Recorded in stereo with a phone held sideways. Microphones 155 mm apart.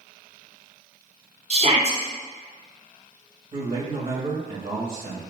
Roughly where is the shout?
Right.